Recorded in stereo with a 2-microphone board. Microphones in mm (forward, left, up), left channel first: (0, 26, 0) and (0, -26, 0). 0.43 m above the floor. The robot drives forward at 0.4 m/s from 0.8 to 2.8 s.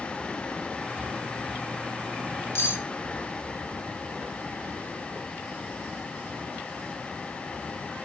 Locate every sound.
2.5 s cutlery clinking: 50° left (ahead or behind), 0.6 m